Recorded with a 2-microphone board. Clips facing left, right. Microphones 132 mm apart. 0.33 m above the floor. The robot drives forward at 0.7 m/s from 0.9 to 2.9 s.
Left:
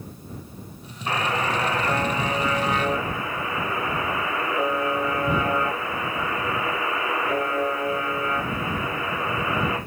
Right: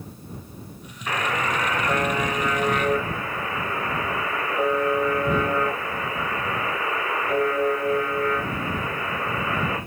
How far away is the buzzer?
About 1.5 m.